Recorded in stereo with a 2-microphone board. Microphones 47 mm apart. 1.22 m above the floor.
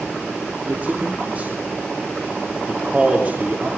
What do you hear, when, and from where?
0.7 s a man speaking: 30° right (ahead or behind), 3.5 m